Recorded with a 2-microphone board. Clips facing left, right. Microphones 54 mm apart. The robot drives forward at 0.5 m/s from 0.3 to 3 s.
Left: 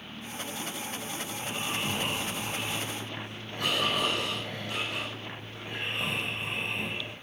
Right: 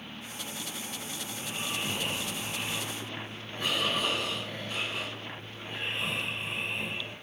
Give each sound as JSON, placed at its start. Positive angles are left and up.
{"t": 1.3, "sound": "snoring", "side_deg": 65, "distance_m": 6.5}